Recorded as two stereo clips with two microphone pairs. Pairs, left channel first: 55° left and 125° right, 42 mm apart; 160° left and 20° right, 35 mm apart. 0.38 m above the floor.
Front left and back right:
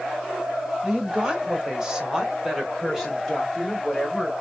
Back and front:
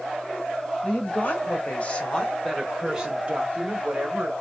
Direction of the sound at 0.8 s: 160° left.